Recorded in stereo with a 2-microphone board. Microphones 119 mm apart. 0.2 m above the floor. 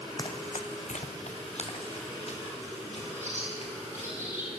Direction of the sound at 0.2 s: 35° left (ahead or behind).